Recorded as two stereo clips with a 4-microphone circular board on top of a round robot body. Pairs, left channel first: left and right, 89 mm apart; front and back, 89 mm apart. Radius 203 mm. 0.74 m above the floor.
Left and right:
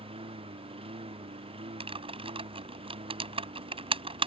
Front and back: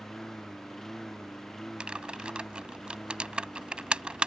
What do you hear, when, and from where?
0.0 s a lawn mower: 85° right
1.8 s typing on a keyboard: 100° right